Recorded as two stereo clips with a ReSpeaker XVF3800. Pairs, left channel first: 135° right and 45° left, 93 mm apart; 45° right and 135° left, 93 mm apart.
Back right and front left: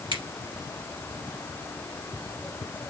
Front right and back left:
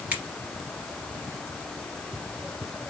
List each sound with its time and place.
0.1 s a finger snap: 60° left, 2.5 m